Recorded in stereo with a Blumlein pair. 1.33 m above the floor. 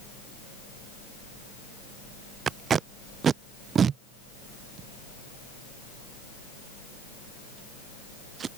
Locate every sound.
2.5 s tape being pulled: 25° right